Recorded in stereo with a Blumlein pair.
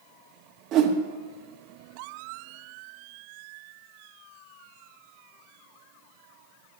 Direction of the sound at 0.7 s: 35° right.